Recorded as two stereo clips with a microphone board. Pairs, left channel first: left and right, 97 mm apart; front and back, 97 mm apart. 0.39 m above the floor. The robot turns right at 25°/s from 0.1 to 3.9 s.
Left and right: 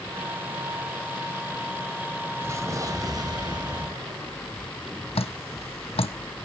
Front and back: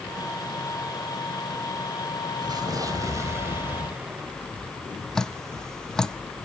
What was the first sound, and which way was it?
An explosion, 145° right.